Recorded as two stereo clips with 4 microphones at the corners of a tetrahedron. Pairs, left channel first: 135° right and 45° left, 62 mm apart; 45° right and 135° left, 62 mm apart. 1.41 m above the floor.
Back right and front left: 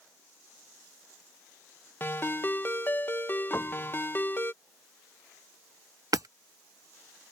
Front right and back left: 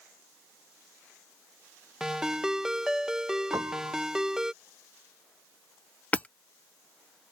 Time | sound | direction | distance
2.0 | a ringtone | 150° right | ?
3.5 | a piano | 170° left | ?
6.1 | hammering | 20° left | ?